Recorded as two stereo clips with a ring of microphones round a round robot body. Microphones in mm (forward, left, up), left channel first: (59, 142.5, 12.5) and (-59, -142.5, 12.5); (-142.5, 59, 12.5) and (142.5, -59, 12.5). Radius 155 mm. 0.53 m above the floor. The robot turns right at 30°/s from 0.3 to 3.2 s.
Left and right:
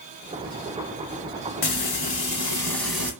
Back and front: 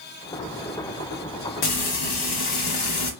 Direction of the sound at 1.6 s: 120° left.